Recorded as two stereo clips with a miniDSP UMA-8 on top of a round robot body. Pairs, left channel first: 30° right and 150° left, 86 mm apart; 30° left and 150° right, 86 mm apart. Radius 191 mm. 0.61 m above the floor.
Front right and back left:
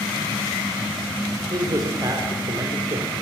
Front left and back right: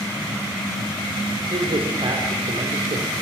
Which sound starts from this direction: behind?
A man speaking, at 1.5 s.